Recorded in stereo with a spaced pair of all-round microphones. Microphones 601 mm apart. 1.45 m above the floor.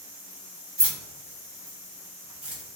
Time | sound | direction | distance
0.8 | keys jangling | 45° right (ahead or behind) | 1.2 m